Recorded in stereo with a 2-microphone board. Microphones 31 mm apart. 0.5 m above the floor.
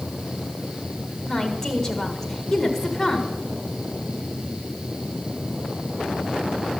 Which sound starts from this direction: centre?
A woman speaking, at 1.3 s.